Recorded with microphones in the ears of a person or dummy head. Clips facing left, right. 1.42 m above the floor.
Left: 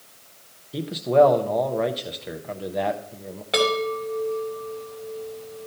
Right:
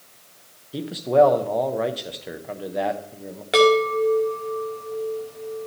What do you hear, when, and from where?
0.7 s a man speaking: centre (ahead or behind), 0.5 m
3.5 s a chime: 25° right (ahead or behind), 2.0 m